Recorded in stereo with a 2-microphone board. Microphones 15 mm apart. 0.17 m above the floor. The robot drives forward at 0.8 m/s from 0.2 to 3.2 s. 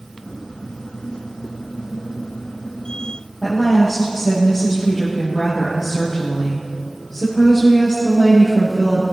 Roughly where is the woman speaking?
Centre.